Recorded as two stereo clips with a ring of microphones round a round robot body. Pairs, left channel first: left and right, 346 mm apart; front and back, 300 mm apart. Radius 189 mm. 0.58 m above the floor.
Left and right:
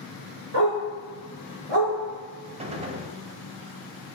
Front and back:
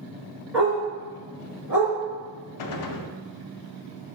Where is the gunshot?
20° right, 0.5 m.